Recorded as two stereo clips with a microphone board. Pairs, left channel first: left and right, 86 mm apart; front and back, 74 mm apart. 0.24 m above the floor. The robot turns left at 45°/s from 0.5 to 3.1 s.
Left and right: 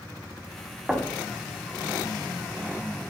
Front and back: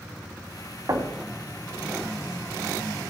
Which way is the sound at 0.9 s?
170° right.